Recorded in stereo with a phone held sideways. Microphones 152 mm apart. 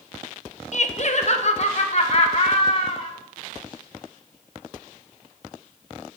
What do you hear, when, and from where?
0.7 s laughter: 55° left (ahead or behind), 1.3 m; by 3.1 s 45° left (ahead or behind), 2.5 m